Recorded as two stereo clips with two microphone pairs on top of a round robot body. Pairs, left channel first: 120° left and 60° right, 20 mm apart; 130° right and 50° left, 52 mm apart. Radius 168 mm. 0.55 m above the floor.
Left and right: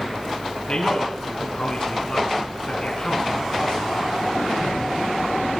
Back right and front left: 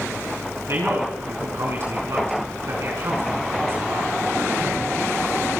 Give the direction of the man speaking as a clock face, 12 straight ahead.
9 o'clock.